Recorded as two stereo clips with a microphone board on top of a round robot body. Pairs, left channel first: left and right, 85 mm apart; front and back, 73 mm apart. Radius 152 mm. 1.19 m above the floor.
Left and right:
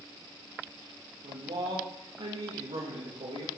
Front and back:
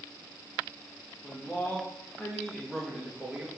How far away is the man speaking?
About 2.5 m.